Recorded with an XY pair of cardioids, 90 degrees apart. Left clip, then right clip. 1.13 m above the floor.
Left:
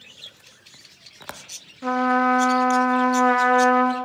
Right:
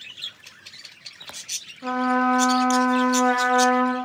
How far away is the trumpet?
About 0.5 m.